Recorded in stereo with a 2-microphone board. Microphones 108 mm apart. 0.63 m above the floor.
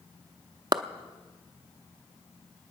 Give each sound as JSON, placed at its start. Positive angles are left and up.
{"t": 0.7, "sound": "a clap", "side_deg": -40, "distance_m": 0.7}